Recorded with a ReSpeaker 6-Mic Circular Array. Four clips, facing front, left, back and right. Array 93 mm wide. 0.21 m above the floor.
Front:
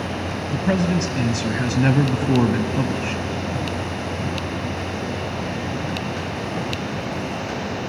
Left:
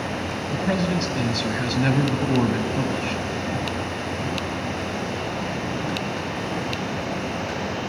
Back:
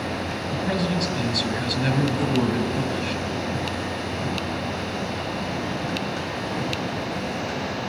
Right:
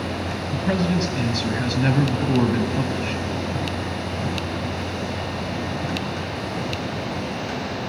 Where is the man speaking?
5° right, 1.0 m.